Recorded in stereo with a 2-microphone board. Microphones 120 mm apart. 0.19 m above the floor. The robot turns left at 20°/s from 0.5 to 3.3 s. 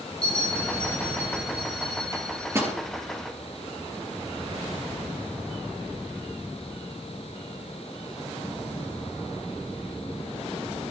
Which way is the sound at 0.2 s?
175° left.